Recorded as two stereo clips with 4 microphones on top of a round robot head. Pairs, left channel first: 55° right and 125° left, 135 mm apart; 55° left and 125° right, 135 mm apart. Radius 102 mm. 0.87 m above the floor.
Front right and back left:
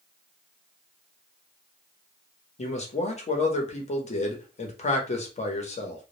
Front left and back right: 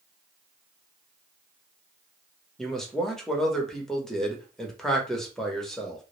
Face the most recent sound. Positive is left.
turn(degrees=-30)